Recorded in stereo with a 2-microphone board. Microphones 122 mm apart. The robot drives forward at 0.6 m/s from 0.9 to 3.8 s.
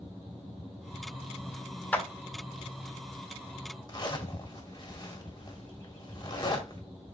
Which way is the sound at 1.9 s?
15° left (ahead or behind).